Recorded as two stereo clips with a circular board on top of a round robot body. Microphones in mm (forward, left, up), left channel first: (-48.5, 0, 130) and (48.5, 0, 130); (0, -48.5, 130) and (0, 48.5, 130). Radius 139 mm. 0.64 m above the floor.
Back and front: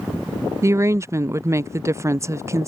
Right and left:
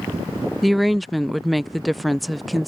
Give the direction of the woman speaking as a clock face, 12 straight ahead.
12 o'clock.